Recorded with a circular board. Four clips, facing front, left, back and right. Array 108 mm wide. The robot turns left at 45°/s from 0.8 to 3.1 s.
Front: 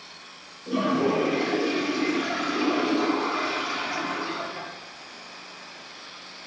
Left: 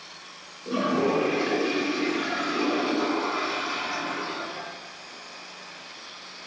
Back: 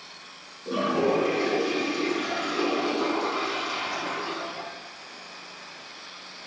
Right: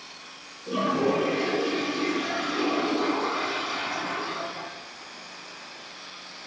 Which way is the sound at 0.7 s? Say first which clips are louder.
Even, front 1 dB; 125° left.